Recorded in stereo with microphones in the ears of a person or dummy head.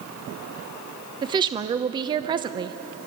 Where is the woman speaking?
20° right (ahead or behind), 0.8 m.